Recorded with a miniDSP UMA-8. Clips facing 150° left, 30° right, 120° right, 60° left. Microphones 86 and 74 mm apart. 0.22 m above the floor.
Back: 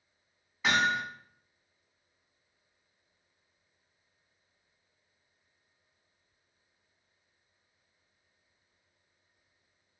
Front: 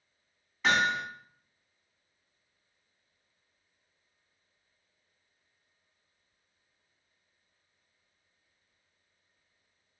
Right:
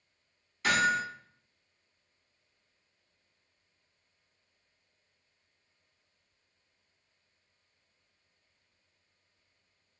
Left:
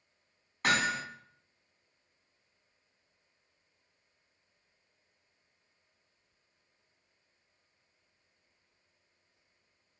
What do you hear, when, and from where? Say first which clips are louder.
0.6 s hammering: front 1 dB, right 3 dB; 65° left, 1.8 m